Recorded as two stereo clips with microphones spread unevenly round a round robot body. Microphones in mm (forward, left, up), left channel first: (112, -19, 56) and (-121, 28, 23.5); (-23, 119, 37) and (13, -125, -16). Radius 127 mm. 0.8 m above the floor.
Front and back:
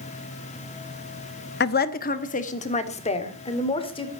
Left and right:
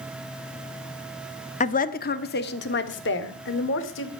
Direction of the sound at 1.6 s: 35° left.